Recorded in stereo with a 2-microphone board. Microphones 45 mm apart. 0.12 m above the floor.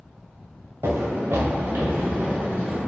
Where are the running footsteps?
75° right (ahead or behind), 0.9 m; by 2.8 s 25° right (ahead or behind), 1.1 m.